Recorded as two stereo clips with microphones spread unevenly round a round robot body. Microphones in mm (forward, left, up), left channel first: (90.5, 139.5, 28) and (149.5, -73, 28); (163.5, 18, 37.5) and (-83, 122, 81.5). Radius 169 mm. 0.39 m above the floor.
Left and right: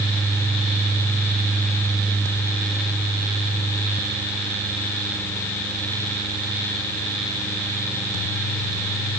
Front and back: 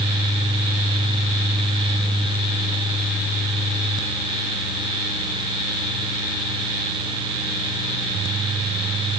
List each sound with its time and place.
Only background noise.